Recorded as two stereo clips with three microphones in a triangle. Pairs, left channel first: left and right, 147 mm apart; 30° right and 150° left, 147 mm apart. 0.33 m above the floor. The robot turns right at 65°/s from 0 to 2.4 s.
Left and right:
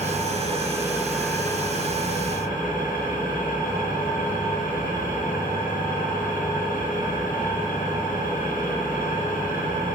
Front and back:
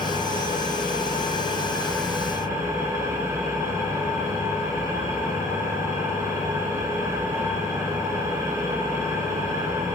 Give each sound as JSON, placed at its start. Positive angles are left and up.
{"t": 0.0, "sound": "an engine running", "azimuth_deg": -70, "distance_m": 3.5}